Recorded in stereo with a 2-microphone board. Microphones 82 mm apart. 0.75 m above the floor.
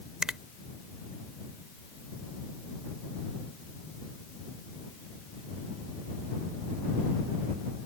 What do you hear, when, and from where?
0.2 s a finger snap: 10° right (ahead or behind)